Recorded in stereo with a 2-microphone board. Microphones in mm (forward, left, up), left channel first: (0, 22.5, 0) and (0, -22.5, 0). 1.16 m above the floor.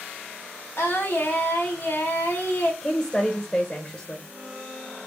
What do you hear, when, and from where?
0.8 s singing: 65° left (ahead or behind), 1.1 m
2.8 s a woman speaking: 30° left (ahead or behind), 0.8 m